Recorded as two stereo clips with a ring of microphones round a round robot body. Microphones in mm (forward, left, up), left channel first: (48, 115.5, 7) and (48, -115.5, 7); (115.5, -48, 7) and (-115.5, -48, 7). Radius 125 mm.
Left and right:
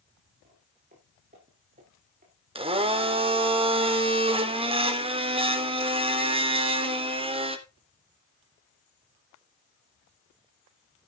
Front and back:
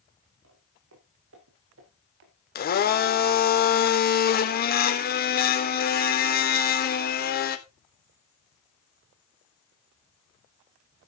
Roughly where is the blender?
Ahead right.